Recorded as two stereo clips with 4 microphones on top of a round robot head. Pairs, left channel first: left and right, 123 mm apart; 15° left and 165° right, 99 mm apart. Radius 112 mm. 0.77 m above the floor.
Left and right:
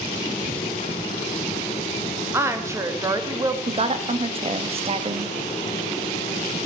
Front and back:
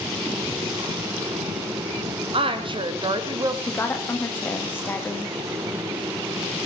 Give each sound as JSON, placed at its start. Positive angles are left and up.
{"t": 2.3, "sound": "a woman speaking", "azimuth_deg": -160, "distance_m": 1.5}
{"t": 3.7, "sound": "a woman speaking", "azimuth_deg": -55, "distance_m": 1.2}